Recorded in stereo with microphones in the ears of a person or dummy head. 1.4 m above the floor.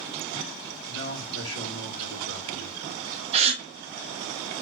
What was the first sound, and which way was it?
A man speaking, 70° right (ahead or behind).